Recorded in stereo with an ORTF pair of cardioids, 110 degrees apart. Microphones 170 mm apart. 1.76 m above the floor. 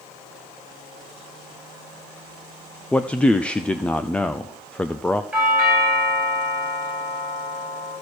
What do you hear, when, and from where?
2.9 s a man speaking: 5° left, 0.6 m
5.3 s a doorbell: straight ahead, 7.5 m